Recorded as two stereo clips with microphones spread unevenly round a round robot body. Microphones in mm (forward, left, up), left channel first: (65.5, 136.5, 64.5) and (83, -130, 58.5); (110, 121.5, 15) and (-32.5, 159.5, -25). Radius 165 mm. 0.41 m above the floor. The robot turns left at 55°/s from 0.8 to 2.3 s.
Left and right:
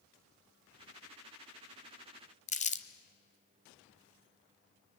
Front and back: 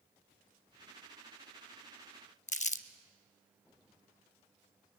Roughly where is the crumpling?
Ahead left.